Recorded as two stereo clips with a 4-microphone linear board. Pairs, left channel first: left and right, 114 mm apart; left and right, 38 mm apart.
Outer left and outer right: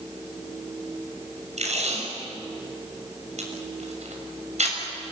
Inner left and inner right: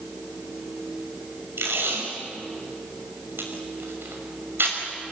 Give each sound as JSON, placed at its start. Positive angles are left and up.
{"t": 1.6, "sound": "tape being pulled", "side_deg": -85, "distance_m": 6.0}